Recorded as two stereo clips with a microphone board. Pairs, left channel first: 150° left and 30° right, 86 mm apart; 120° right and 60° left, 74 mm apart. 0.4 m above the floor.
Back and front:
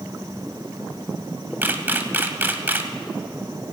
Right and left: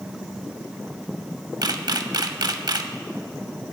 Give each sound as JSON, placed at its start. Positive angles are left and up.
{"t": 1.6, "sound": "a camera shutter", "azimuth_deg": 35, "distance_m": 0.6}